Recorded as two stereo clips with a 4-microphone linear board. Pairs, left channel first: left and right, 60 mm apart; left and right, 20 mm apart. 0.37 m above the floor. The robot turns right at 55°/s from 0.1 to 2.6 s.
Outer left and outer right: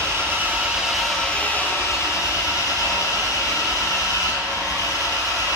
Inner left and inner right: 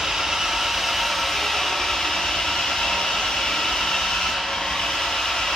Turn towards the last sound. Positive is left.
turn(degrees=90)